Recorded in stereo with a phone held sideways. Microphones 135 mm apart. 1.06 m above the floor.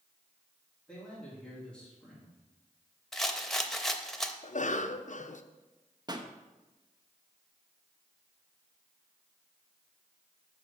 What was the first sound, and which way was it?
A man speaking, 5° left (ahead or behind).